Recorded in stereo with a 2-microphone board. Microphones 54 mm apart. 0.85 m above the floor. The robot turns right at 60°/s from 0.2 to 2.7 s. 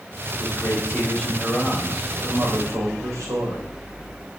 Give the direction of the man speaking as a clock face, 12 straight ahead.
8 o'clock.